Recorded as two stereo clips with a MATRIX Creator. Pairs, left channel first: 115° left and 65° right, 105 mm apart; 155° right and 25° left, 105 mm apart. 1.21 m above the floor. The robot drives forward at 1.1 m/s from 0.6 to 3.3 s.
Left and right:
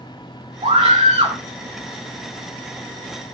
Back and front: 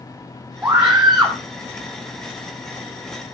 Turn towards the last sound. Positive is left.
turn(degrees=-115)